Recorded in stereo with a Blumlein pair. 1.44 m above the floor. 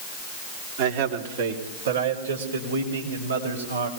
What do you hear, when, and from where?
0.8 s a man speaking: 50° right, 3.5 m; by 3.9 s 75° right, 6.5 m